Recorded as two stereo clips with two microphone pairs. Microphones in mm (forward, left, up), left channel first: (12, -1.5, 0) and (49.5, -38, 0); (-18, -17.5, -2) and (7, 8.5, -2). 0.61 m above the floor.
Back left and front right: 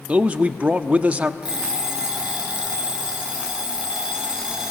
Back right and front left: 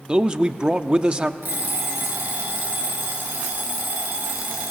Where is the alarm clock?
25° left, 3.5 m.